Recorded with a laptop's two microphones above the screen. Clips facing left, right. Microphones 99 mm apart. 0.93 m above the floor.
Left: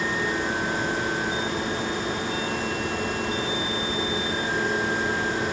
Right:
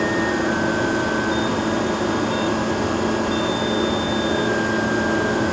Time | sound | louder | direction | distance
0.0 | a machine running | right 7 dB | 70° right (ahead or behind) | 1.9 m